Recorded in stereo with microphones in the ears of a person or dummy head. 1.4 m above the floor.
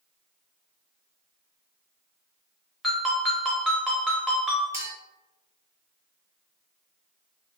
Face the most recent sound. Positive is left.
turn(degrees=-15)  # may be behind; listen again after turning